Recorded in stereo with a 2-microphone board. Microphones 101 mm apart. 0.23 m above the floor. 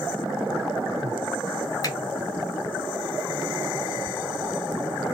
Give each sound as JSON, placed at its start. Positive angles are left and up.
{"t": 1.8, "sound": "a finger snap", "side_deg": 35, "distance_m": 1.7}